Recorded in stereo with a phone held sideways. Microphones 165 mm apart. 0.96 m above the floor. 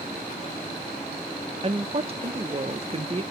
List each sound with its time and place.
1.6 s a woman speaking: 35° right (ahead or behind), 0.6 m